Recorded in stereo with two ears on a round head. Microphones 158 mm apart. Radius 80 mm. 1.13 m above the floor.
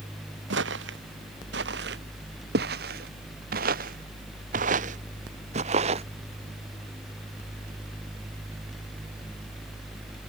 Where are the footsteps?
70° right (ahead or behind); by 6.1 s 35° right (ahead or behind).